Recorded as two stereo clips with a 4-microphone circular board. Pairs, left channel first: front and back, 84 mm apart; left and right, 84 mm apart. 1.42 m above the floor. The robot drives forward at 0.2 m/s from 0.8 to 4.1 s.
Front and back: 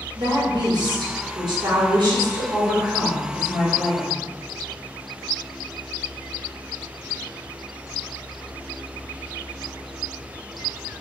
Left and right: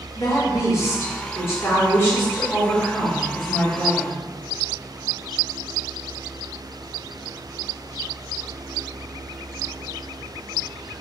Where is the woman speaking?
150° left, 1.2 m; by 4.1 s 160° left, 1.8 m.